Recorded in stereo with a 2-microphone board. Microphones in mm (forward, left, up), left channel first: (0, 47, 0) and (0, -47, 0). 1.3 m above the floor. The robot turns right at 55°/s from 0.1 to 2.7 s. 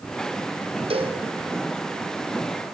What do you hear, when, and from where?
0.9 s a cowbell: 80° right, 2.5 m; by 1.2 s 75° right (ahead or behind), 2.5 m